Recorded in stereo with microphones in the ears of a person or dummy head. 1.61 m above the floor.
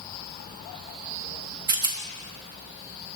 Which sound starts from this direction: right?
A rattle, at 1.7 s.